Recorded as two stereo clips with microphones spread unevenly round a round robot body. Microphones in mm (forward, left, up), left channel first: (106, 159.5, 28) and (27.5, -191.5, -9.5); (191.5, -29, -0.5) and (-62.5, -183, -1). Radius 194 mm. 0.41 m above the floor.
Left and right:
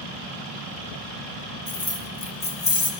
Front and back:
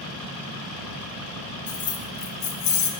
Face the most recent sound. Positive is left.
turn(degrees=0)